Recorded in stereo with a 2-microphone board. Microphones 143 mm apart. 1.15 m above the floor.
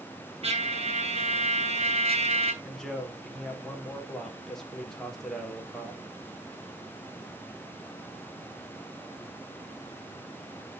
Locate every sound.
0.4 s a trumpet: 50° right (ahead or behind), 3 m
2.6 s a man speaking: 5° left (ahead or behind), 3.5 m